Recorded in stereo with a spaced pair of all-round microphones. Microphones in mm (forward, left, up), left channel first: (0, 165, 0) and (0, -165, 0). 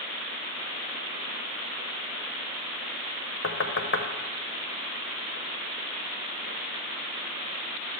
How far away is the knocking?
About 0.6 m.